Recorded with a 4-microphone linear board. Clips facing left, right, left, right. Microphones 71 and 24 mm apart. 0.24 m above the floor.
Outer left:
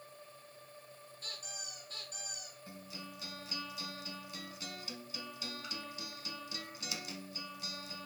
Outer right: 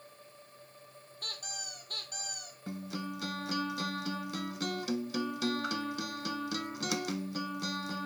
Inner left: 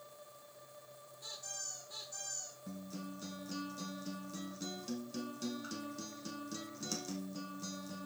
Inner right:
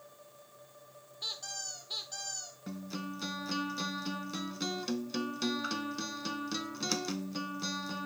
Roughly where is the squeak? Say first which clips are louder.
Outer right 5 dB, inner right 7 dB; right.